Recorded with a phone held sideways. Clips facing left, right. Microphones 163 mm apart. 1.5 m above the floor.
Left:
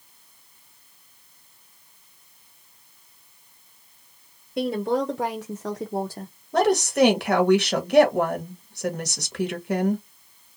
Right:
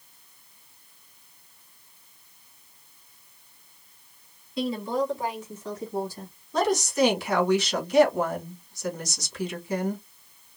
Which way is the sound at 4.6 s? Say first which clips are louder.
Left 3 dB; 55° left (ahead or behind).